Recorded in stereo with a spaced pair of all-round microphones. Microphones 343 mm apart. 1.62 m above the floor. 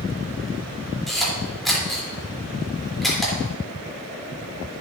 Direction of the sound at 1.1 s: Centre (ahead or behind).